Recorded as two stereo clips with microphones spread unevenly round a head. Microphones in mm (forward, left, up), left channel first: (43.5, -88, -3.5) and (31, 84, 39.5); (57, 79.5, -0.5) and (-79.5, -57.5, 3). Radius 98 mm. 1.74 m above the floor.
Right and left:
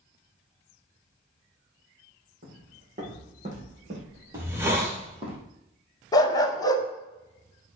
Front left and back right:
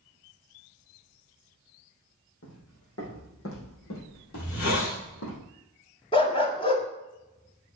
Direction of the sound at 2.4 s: 65° left.